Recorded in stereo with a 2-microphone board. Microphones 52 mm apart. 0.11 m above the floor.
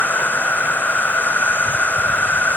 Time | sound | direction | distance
0.0 | an insect | 35° left (ahead or behind) | ?